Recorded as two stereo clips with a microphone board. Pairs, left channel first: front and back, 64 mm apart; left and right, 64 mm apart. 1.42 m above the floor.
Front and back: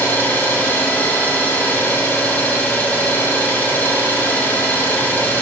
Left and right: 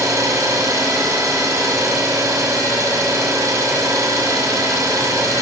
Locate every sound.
0.0 s an engine running: 60° right, 3 m